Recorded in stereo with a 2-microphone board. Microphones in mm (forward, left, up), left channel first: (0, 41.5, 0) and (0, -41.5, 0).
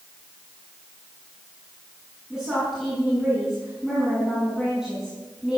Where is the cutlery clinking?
I don't hear cutlery clinking.